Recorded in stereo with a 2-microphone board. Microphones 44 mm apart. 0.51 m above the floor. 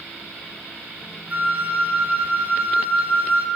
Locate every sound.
1.3 s a flute: 35° right (ahead or behind), 0.9 m